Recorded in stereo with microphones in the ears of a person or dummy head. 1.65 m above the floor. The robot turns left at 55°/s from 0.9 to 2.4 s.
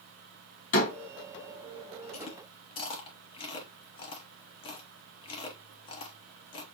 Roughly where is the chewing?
Left.